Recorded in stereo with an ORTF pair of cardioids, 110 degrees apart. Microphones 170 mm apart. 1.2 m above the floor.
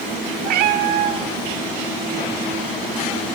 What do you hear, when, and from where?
0.4 s a cat meowing: 70° right, 1.8 m